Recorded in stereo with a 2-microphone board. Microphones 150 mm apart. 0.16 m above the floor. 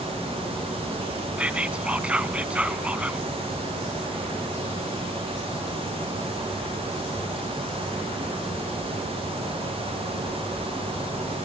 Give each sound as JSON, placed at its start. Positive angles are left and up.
{"t": 1.4, "sound": "whispering", "side_deg": -10, "distance_m": 1.0}